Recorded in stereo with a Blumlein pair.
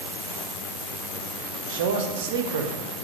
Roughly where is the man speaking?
Ahead right.